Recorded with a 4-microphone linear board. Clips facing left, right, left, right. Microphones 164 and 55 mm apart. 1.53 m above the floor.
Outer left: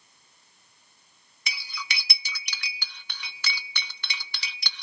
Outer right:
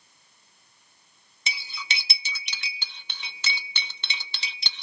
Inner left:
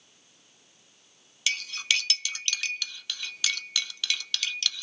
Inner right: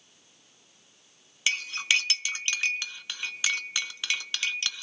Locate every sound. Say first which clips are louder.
1.5 s cutlery clinking: outer right 1 dB, inner right 2 dB; 25° right (ahead or behind), 0.6 m